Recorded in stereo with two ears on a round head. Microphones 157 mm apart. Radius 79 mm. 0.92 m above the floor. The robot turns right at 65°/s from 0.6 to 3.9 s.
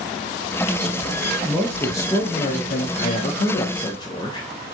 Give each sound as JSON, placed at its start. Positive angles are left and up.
{"t": 1.4, "sound": "a man speaking", "azimuth_deg": -10, "distance_m": 0.5}